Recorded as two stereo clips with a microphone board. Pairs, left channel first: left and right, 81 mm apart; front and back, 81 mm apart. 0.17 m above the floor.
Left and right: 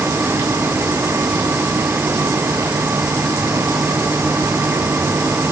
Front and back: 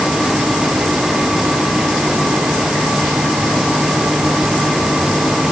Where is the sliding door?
No sliding door in this recording.